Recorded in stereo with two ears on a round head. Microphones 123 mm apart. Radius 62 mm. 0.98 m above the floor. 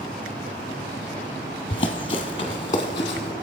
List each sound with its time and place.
1.7 s running footsteps: 35° left (ahead or behind), 1.1 m